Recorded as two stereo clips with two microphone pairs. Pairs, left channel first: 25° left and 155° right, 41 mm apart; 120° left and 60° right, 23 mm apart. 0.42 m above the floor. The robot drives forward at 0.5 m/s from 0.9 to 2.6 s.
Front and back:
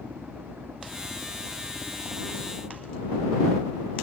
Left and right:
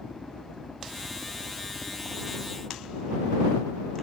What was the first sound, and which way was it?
A helicopter, straight behind.